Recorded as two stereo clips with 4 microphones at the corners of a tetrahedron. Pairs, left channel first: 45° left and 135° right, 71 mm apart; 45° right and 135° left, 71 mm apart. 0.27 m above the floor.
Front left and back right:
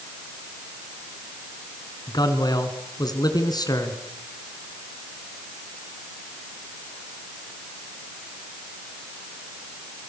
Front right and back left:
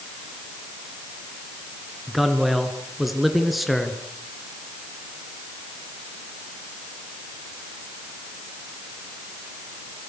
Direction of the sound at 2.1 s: 45° left.